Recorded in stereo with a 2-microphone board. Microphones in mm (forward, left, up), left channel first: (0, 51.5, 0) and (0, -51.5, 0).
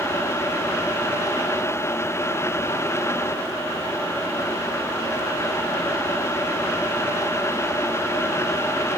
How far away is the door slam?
No door slam in this recording.